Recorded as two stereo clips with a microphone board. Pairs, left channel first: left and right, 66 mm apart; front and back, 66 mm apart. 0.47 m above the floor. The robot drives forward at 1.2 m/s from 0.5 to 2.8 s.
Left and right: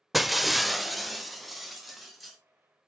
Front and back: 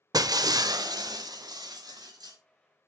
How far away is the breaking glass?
About 0.6 m.